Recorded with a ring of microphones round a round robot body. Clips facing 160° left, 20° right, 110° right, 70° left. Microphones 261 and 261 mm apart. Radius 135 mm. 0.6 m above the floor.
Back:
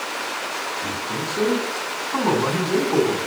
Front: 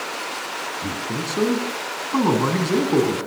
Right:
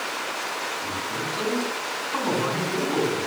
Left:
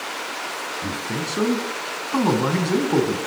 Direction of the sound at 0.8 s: 35° left.